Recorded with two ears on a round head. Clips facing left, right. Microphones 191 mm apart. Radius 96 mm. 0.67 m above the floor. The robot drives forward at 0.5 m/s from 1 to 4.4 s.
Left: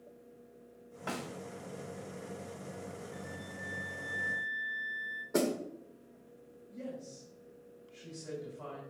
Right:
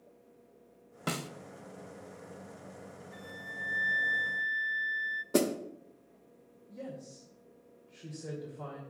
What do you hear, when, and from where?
1.1 s a snare drum: 45° right (ahead or behind), 0.6 m
3.1 s a flute: 55° right (ahead or behind), 0.9 m; by 5.2 s 75° right (ahead or behind), 0.7 m
5.3 s a snare drum: 40° right (ahead or behind), 0.8 m
6.7 s a woman speaking: 70° right (ahead or behind), 2 m